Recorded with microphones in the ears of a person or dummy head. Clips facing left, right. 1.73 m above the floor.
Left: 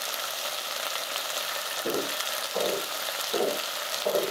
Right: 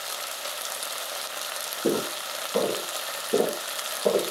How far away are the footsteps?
About 3.5 m.